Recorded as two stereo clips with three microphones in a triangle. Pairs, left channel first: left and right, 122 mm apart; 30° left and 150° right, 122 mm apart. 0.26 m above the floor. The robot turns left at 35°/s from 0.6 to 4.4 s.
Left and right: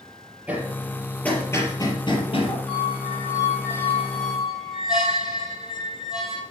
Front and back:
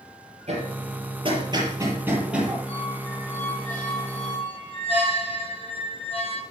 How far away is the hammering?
About 4.5 m.